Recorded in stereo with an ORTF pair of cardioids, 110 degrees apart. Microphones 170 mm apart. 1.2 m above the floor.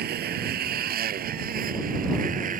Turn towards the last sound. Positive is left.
turn(degrees=-50)